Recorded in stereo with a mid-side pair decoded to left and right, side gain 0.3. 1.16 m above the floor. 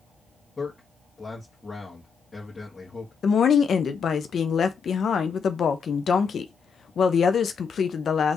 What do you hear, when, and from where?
0.6 s a man speaking: 35° left, 1.6 m
3.2 s a woman speaking: 70° left, 0.7 m